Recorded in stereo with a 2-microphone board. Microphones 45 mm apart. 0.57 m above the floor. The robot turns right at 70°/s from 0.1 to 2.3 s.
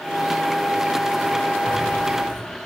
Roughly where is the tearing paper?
Right.